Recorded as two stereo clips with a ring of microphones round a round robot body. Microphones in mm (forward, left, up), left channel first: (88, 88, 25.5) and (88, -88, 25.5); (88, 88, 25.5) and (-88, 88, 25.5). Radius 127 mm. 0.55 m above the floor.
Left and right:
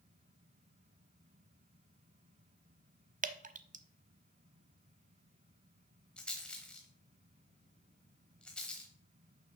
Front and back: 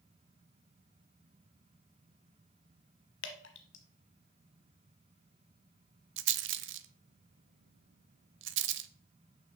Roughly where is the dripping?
Ahead right.